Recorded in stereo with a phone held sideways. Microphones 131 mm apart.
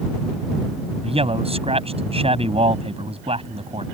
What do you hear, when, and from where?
1.0 s a man speaking: 50° right (ahead or behind)